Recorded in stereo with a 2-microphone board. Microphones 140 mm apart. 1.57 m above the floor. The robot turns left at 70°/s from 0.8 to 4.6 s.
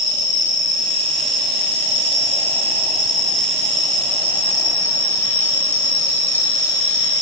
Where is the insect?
10° right, 1.4 m; by 7.2 s 80° left, 1.4 m.